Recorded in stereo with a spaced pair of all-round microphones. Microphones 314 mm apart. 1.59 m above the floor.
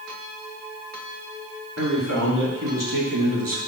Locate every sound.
1.8 s a man speaking: 60° right (ahead or behind), 3 m; by 3.6 s 75° right (ahead or behind), 1.2 m